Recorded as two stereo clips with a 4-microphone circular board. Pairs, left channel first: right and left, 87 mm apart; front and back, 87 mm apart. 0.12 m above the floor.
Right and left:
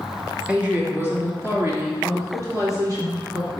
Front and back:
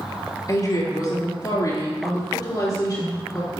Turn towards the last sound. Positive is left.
turn(degrees=50)